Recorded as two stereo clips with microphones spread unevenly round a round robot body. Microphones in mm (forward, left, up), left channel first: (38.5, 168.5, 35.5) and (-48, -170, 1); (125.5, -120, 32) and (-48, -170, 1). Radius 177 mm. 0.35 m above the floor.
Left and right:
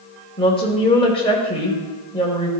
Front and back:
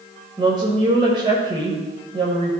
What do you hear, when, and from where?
0.4 s a woman speaking: 150° left, 1.3 m